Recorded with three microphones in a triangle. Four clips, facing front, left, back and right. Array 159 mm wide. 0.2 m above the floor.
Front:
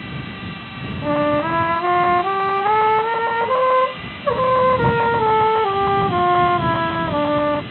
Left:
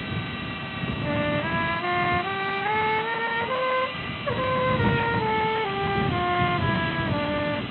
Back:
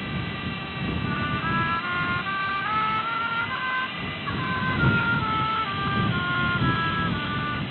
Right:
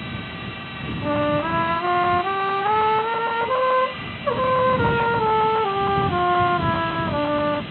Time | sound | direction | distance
1.0 | a trumpet | 20° right | ?